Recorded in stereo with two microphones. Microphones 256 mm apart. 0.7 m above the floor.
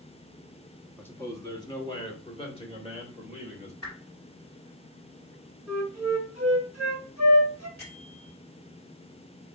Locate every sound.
1.0 s a man speaking: 5° left (ahead or behind), 0.9 m; by 3.7 s 25° left (ahead or behind), 2 m
3.8 s a whoosh: 65° left (ahead or behind), 3 m
5.7 s a flute: 65° left (ahead or behind), 2.5 m
7.8 s a bell: 60° left (ahead or behind), 3 m